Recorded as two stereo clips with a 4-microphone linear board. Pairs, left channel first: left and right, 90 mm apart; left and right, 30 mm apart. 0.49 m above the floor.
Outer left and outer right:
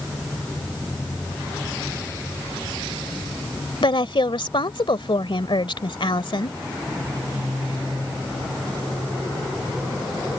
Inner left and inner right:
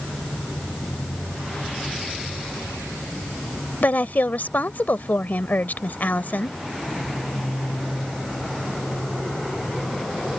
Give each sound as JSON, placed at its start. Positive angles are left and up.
{"t": 3.8, "sound": "a woman speaking", "side_deg": 65}